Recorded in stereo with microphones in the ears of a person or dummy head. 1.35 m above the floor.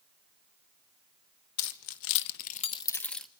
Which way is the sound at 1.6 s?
75° left (ahead or behind).